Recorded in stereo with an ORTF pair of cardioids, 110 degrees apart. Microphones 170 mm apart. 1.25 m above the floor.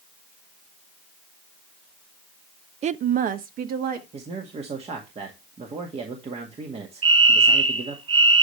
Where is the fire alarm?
40° right, 7.5 m.